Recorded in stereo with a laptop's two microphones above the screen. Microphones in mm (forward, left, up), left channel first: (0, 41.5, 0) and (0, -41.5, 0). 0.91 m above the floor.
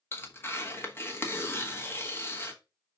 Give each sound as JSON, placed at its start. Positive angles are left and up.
{"t": 0.1, "sound": "tearing paper", "side_deg": 30, "distance_m": 1.1}